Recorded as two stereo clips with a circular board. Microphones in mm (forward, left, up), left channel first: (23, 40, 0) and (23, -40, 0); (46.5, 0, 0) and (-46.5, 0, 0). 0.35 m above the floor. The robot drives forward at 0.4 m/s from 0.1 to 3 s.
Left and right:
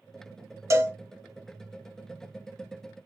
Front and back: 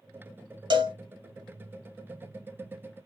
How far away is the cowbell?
About 0.7 m.